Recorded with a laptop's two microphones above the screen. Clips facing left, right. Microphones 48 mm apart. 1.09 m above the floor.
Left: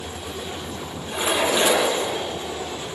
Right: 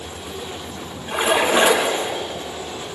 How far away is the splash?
About 4.5 m.